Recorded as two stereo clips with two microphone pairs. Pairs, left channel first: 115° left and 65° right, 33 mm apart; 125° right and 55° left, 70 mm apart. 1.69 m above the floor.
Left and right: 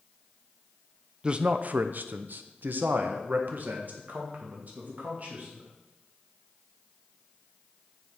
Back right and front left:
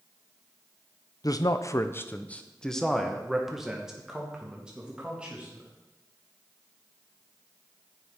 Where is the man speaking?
125° right, 0.7 m; by 5.7 s 20° right, 3 m.